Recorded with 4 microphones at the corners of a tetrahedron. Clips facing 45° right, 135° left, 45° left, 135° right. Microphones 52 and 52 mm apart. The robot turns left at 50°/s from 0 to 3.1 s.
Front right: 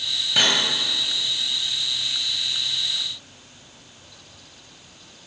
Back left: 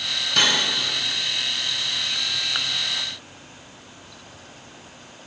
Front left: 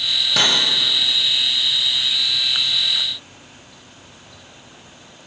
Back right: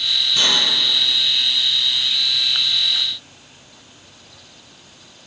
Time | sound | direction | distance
0.4 | cutlery clinking | 40° left | 3.5 m